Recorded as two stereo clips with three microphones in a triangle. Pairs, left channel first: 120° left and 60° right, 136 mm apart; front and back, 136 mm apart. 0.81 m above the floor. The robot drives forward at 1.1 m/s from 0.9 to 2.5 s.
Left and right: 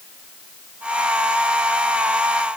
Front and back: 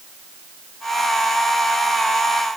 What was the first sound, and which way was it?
Only background noise.